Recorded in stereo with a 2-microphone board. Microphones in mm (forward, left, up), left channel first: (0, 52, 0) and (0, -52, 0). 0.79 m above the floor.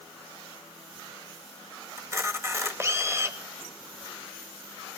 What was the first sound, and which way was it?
A camera shutter, 25° right (ahead or behind).